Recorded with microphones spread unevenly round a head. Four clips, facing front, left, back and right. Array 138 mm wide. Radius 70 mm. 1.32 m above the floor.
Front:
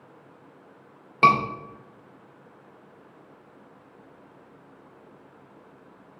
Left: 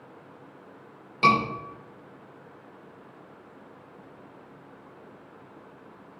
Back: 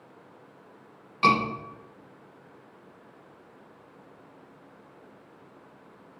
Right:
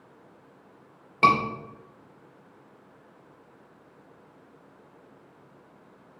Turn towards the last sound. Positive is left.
turn(degrees=-20)